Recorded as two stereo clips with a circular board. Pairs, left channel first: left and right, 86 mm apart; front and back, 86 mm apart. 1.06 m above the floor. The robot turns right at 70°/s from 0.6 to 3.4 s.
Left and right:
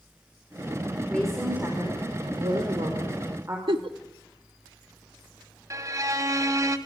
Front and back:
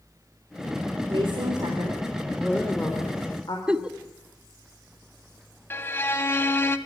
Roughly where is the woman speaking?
Behind.